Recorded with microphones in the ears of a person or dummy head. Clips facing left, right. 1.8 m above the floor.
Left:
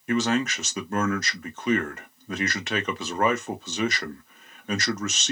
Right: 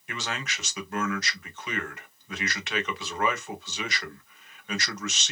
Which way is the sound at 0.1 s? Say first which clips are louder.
Left 13 dB; 35° left (ahead or behind).